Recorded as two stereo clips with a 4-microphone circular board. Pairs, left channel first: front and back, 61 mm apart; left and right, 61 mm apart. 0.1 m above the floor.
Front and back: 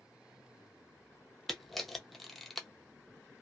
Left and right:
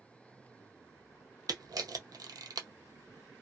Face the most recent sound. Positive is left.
turn(degrees=-85)